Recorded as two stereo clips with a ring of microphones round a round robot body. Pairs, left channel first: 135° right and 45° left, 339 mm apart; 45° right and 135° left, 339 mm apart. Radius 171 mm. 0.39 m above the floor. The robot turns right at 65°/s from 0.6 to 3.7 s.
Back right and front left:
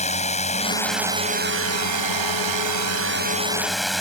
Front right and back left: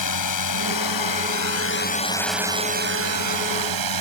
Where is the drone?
65° right; by 4.0 s 135° left.